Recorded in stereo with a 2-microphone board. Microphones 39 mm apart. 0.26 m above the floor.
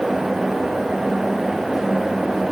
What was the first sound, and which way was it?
Only background noise.